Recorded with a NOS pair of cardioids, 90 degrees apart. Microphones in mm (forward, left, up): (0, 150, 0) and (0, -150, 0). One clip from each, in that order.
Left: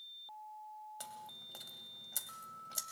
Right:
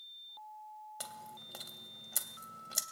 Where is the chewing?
30° right, 2 m.